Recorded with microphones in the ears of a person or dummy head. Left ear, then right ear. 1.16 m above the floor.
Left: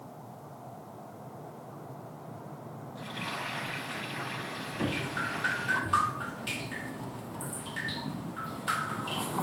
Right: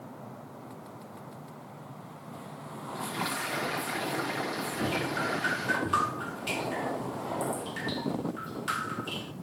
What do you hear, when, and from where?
3.0 s frying: 70° right (ahead or behind), 8 m
4.8 s dripping: centre (ahead or behind), 0.6 m